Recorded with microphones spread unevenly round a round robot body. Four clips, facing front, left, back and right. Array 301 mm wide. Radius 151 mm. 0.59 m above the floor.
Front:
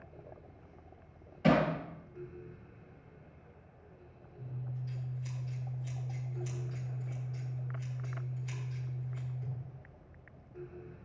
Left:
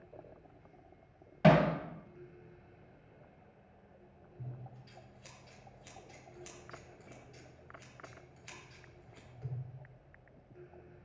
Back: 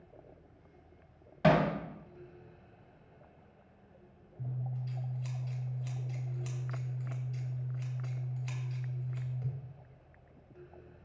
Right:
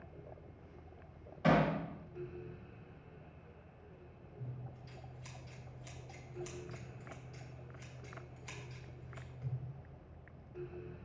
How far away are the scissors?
About 3 m.